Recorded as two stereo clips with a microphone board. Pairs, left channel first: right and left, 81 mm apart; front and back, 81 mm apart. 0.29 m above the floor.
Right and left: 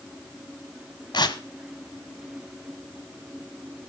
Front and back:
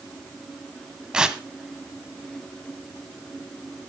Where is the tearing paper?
100° right, 1.0 m.